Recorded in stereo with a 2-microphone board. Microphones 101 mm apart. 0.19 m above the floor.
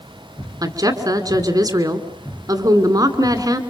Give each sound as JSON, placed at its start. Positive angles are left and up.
{"t": 0.6, "sound": "a woman speaking", "side_deg": -40, "distance_m": 2.0}